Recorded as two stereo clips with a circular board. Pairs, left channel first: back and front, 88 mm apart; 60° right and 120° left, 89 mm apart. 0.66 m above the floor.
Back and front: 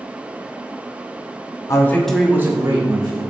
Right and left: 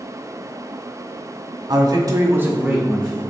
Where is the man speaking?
140° left, 1.1 m; by 3.2 s 30° left, 2 m.